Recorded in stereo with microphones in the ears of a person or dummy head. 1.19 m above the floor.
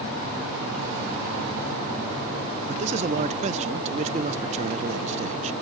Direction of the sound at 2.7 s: 35° right (ahead or behind).